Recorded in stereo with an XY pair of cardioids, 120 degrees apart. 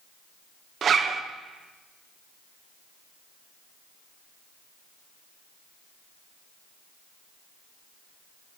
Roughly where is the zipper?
Ahead right.